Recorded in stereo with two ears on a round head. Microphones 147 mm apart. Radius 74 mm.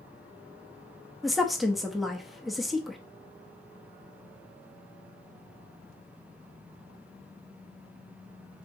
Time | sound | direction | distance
1.2 | a woman speaking | centre (ahead or behind) | 0.6 m